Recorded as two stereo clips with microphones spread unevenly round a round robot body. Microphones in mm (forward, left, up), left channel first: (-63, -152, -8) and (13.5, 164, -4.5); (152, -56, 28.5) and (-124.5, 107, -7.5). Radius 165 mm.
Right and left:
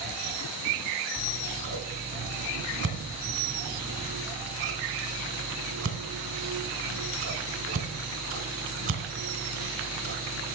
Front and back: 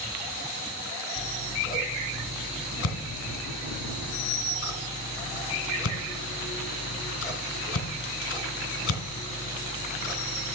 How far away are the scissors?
About 2.5 m.